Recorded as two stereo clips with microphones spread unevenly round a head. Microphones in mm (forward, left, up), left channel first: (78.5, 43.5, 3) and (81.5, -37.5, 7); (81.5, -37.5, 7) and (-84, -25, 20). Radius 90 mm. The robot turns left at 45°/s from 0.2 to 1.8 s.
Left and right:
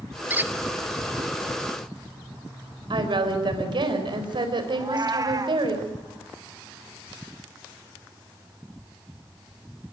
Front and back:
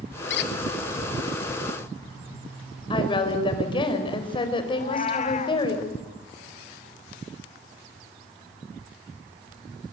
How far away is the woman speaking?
About 4.5 m.